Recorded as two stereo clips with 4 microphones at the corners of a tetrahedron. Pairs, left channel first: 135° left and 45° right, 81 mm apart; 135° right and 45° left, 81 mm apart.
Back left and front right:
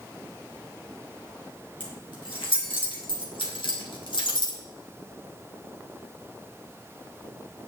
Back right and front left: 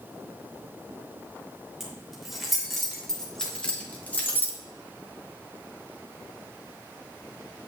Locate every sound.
1.8 s keys jangling: 130° left, 3 m; by 4.6 s 160° left, 1.9 m